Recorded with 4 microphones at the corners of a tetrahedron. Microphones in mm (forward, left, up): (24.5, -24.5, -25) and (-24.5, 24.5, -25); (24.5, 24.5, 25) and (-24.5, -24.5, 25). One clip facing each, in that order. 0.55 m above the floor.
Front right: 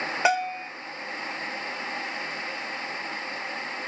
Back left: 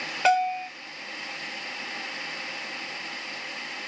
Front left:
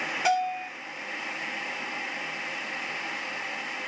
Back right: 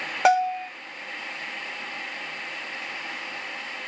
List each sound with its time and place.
0.2 s a bell: 120° right, 1.3 m